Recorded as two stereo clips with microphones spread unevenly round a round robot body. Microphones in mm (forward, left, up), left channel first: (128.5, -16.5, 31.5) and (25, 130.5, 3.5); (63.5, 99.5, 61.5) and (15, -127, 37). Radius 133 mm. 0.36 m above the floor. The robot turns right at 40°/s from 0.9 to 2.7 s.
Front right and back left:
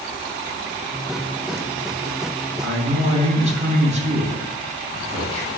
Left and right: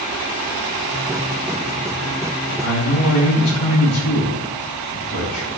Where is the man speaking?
75° left, 3.5 m; by 5.5 s 80° left, 3.5 m.